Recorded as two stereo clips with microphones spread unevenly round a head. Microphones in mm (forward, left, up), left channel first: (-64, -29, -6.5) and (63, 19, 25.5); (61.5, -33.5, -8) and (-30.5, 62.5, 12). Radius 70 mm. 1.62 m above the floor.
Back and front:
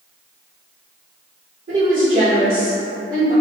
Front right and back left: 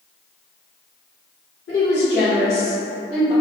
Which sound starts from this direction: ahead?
A woman speaking, at 1.7 s.